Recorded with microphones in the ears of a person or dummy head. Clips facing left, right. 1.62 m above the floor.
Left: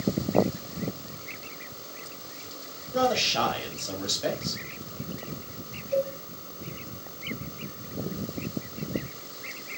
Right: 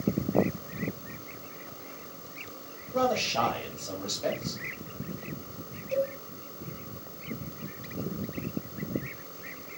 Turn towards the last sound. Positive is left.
turn(degrees=-65)  # may be behind; listen again after turning